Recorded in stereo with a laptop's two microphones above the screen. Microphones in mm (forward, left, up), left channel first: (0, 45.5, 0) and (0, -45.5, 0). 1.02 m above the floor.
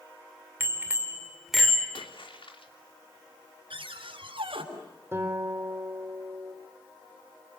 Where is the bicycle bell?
25° right (ahead or behind), 2.5 m; by 1.9 s 10° left (ahead or behind), 2.5 m.